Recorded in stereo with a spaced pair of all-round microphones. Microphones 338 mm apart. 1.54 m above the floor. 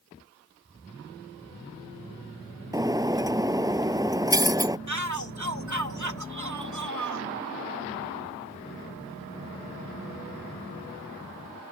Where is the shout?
60° right (ahead or behind).